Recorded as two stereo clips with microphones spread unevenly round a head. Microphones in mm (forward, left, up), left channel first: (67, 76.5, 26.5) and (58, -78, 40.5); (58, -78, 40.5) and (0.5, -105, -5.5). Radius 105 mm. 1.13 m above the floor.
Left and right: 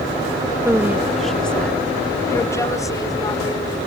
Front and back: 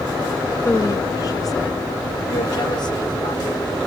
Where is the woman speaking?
20° right; by 3.8 s 20° left.